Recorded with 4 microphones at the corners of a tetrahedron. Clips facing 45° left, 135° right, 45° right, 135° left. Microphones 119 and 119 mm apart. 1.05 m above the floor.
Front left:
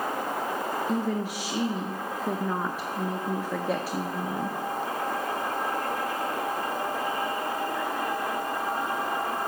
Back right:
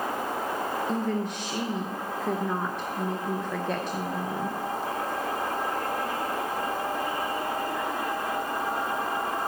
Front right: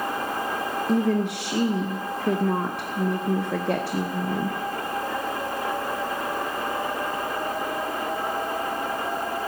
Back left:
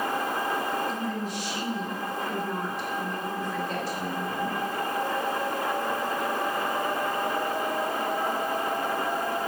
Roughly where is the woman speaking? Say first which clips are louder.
Even, front right 8 dB; ahead right.